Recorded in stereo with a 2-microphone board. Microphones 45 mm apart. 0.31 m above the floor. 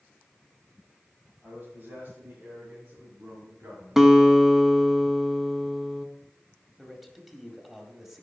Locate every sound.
1.4 s a man speaking: 45° right (ahead or behind), 2.5 m; by 4.1 s 55° right (ahead or behind), 4 m
4.0 s a guitar: 10° right (ahead or behind), 0.8 m
6.8 s a man speaking: 5° right (ahead or behind), 1.8 m